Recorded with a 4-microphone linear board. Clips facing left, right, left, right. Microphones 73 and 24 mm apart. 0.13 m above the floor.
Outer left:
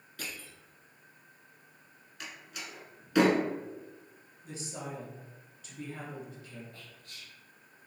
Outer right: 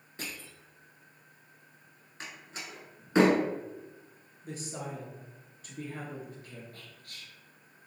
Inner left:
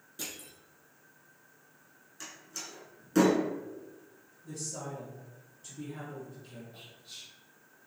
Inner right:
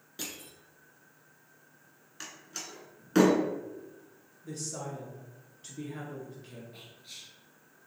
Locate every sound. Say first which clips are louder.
0.2 s crushing: outer right 1 dB, inner right 1 dB; 25° right (ahead or behind), 1.1 m
2.2 s a door slam: outer right 1 dB, inner right 1 dB; 30° right (ahead or behind), 0.9 m
4.4 s a woman speaking: outer right 2 dB, inner right 2 dB; 45° right (ahead or behind), 1.4 m
6.7 s whispering: outer right 1 dB, even; 55° right (ahead or behind), 1.7 m